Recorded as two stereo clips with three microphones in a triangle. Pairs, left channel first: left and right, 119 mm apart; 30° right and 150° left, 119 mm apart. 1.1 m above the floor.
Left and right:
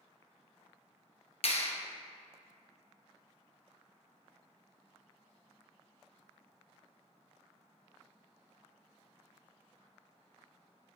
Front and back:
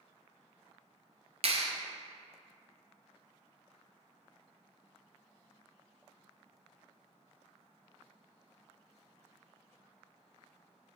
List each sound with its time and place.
1.4 s a clap: 120° left, 0.7 m